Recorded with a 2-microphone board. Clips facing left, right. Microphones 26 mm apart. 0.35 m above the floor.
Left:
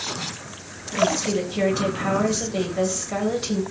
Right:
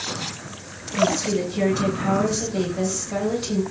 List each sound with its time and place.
1.0 s a woman speaking: 25° left (ahead or behind), 1.4 m